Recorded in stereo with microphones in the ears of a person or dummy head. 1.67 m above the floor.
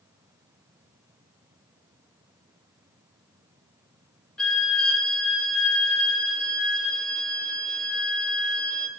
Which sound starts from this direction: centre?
A violin, at 4.4 s.